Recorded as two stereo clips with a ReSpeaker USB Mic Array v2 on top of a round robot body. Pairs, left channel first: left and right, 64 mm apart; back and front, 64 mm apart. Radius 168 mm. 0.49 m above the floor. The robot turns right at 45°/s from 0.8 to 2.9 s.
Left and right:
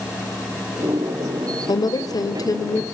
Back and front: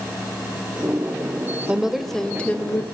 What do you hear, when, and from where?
1.7 s a woman speaking: 75° left, 2.5 m; by 2.8 s 125° left, 2.5 m